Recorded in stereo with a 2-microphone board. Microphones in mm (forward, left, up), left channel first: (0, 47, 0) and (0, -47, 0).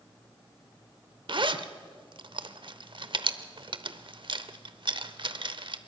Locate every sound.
1.3 s a zipper: 60° right (ahead or behind), 0.9 m